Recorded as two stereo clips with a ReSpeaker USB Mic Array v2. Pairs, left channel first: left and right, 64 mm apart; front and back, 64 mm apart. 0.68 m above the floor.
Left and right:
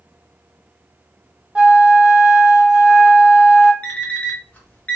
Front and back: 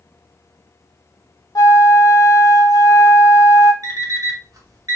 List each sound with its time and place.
1.6 s a flute: 15° right, 0.5 m
3.8 s an alarm clock: 155° left, 0.9 m